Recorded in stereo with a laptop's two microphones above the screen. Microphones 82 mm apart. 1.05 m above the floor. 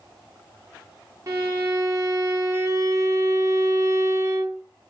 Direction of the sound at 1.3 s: 35° right (ahead or behind).